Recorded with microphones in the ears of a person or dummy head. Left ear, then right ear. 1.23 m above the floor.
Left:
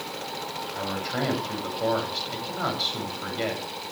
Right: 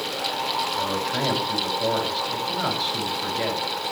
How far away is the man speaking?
About 8 m.